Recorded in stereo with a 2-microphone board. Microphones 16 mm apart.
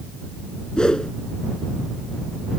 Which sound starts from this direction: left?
A whoosh, at 0.8 s.